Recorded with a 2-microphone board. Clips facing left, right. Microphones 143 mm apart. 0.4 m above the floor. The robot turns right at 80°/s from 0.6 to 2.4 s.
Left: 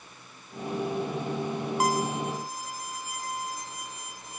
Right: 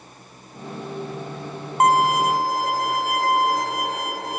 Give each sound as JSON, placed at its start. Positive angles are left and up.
{"t": 1.8, "sound": "a violin", "azimuth_deg": -125}